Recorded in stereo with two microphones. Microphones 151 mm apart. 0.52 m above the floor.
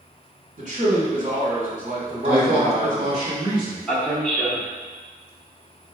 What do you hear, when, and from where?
0.6 s a man speaking: 55° right (ahead or behind), 1.8 m
2.2 s a man speaking: 40° right (ahead or behind), 1.8 m
3.9 s a man speaking: 10° left (ahead or behind), 0.8 m